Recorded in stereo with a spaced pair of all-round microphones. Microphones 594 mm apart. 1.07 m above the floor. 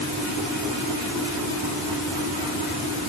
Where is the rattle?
I don't hear a rattle.